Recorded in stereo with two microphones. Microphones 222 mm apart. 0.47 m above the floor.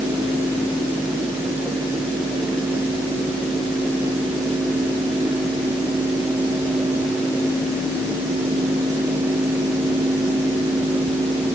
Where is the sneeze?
No sneeze in this recording.